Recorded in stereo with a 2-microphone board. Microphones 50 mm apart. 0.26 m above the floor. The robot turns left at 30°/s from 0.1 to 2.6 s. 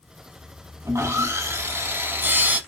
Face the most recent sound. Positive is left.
turn(degrees=-145)